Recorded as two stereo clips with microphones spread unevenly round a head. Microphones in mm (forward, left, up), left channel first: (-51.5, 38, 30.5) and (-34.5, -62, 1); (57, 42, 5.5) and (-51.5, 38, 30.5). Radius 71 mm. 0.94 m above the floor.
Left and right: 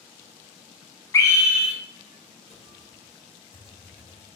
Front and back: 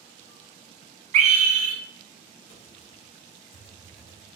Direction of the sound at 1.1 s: 165° left.